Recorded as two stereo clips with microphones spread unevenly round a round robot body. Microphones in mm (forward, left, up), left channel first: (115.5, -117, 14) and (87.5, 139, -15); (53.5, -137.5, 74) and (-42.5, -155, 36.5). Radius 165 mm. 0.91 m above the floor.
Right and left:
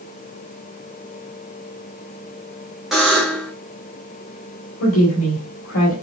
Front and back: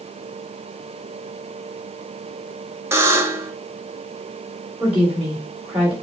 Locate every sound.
2.9 s a buzzer: straight behind, 1.0 m
4.8 s a woman speaking: 95° right, 3 m